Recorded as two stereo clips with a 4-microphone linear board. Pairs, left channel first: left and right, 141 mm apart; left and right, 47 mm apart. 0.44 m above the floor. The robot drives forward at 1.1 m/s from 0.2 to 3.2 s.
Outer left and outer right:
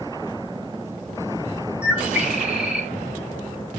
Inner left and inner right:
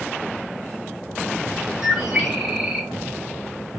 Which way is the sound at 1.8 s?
10° right (ahead or behind).